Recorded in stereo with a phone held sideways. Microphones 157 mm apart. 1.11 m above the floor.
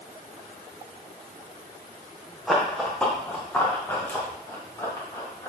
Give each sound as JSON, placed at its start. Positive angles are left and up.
{"t": 2.5, "sound": "running footsteps", "side_deg": 0, "distance_m": 2.5}